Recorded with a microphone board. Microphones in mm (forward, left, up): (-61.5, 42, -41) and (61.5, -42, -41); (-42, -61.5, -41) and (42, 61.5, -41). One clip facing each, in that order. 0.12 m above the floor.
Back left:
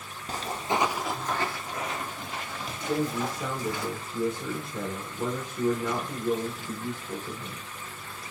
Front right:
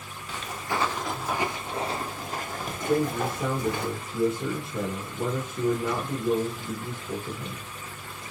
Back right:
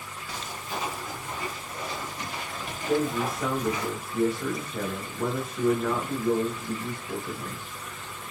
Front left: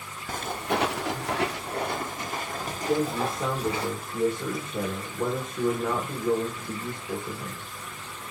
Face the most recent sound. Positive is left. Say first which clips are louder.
# front right 3 dB, even
turn(degrees=0)